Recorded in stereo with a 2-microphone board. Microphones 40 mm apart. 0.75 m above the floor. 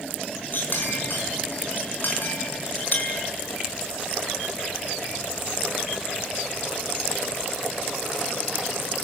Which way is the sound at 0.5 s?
55° left (ahead or behind).